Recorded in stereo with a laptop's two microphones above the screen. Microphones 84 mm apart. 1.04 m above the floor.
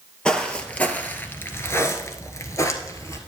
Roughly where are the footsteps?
Centre.